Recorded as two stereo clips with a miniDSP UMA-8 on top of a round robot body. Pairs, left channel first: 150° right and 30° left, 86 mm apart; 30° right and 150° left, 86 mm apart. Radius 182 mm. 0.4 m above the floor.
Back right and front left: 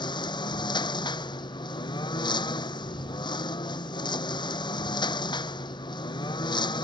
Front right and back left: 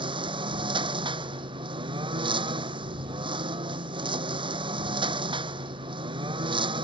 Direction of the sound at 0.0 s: 175° left.